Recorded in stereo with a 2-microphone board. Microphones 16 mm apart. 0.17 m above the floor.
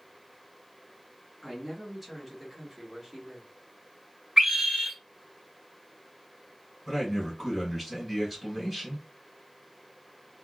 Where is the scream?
35° right (ahead or behind), 1.9 m.